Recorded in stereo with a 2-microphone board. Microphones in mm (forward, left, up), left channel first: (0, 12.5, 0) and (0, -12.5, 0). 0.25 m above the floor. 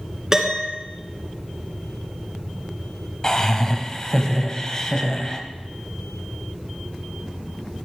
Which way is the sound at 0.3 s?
25° right (ahead or behind).